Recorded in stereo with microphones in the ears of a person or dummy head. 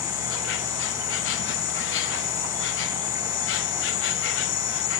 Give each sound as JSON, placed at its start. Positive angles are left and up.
{"t": 0.0, "sound": "an insect", "side_deg": 60}